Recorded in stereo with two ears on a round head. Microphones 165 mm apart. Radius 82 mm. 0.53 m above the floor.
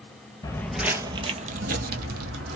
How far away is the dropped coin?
I don't hear a dropped coin.